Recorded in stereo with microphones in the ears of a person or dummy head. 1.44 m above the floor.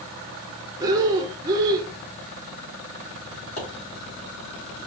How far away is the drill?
I don't hear a drill.